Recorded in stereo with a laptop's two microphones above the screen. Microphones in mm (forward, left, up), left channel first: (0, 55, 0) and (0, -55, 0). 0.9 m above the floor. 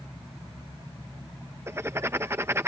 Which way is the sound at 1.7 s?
25° right (ahead or behind).